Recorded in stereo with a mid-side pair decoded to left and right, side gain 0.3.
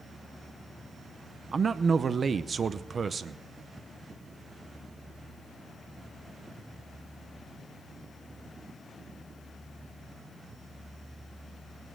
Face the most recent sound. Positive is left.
turn(degrees=-60)